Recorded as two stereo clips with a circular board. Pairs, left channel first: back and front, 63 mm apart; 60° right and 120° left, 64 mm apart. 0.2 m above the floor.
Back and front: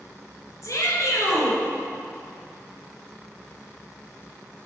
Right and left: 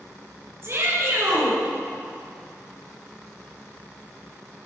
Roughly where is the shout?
Behind left.